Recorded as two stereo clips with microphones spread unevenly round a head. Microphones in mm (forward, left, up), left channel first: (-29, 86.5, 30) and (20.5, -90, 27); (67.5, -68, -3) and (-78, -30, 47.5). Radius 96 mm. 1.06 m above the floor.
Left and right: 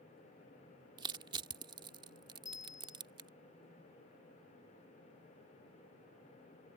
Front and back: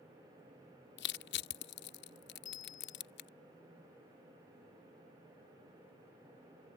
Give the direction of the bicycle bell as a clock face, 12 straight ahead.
11 o'clock.